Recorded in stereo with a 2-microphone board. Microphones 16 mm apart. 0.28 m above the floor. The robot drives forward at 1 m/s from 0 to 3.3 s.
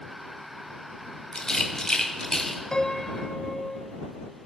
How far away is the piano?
About 1.5 m.